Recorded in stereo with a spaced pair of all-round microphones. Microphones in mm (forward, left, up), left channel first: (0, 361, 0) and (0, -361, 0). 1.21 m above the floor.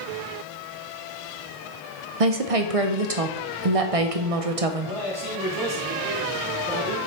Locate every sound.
2.2 s a woman speaking: 50° right (ahead or behind), 0.8 m
4.8 s a man speaking: 30° right (ahead or behind), 2.5 m